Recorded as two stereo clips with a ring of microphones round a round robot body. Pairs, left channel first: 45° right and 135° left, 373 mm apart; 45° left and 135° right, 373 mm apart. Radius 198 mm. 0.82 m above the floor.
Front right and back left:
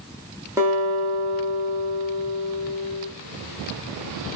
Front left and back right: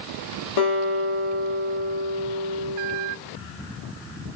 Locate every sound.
0.6 s a guitar: 55° left, 1.7 m